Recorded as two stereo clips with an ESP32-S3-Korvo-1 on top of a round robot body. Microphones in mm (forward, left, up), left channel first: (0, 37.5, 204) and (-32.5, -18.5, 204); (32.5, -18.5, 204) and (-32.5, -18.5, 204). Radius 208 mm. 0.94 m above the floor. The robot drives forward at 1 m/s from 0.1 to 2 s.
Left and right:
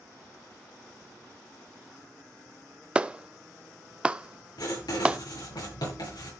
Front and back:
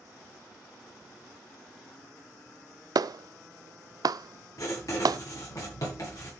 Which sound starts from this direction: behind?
A clap, at 3.0 s.